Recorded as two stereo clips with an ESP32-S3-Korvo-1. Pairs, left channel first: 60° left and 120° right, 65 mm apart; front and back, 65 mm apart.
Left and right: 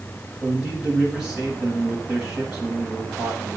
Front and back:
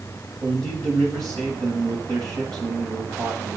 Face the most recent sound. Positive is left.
turn(degrees=170)